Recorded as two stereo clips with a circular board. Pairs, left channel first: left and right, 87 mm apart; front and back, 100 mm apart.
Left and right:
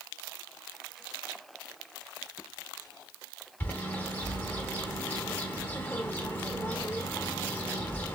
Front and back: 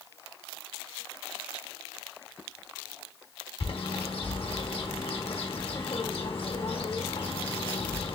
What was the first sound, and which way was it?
A bird, 25° left.